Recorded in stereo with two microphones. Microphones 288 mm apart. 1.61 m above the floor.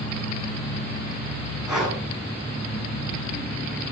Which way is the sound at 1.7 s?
Centre (ahead or behind).